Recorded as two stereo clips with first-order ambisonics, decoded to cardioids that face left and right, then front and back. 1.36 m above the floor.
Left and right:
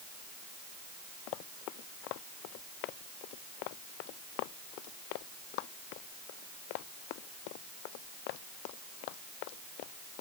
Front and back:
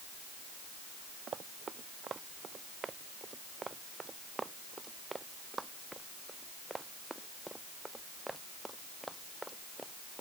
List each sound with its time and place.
1.3 s running footsteps: 115° left; by 10.2 s 90° left